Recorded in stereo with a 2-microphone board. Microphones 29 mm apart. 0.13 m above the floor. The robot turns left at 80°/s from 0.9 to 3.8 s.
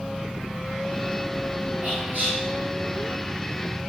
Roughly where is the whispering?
Right.